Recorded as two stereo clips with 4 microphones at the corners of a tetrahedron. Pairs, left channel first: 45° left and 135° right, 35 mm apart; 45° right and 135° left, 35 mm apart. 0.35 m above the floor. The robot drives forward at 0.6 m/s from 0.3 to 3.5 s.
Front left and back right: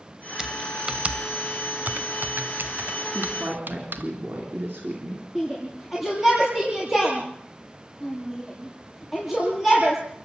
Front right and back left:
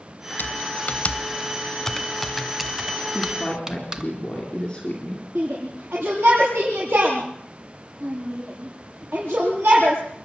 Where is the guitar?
No guitar in this recording.